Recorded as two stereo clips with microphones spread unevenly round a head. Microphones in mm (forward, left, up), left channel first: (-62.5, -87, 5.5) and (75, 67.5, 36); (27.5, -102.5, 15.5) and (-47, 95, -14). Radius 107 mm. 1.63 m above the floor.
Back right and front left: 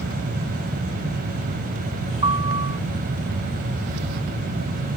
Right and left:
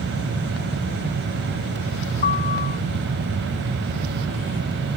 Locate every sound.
2.2 s a piano: 15° right